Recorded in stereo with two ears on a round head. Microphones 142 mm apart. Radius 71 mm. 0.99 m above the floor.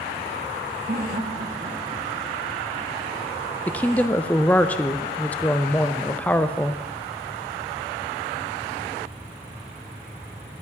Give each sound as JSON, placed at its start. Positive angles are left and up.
{"t": 0.9, "sound": "laughter", "side_deg": -55, "distance_m": 1.4}
{"t": 3.7, "sound": "a woman speaking", "side_deg": 10, "distance_m": 0.5}